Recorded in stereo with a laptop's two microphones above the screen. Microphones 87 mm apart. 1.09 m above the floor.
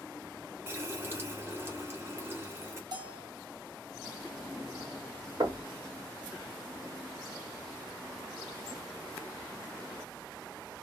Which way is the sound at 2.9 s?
55° right (ahead or behind).